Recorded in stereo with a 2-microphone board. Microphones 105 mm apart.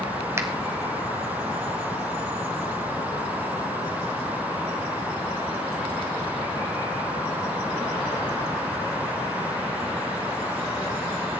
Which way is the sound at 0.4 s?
25° right (ahead or behind).